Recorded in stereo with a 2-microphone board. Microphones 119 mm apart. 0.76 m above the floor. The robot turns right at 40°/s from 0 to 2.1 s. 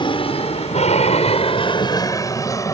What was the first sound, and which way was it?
An aircraft, 45° left (ahead or behind).